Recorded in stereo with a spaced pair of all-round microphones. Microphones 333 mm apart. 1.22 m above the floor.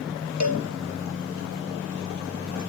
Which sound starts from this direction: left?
A cowbell, at 0.4 s.